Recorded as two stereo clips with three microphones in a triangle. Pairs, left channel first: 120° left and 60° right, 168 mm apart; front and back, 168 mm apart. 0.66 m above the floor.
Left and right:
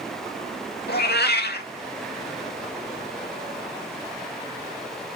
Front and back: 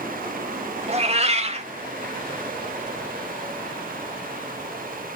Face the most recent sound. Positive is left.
turn(degrees=130)